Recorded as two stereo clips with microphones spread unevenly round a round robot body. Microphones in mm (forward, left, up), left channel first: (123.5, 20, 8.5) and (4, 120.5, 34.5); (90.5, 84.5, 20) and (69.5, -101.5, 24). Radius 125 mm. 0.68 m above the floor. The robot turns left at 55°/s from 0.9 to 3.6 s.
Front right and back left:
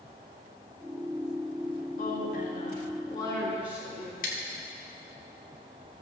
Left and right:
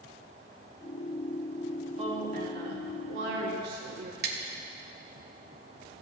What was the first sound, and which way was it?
A woman speaking, 40° right.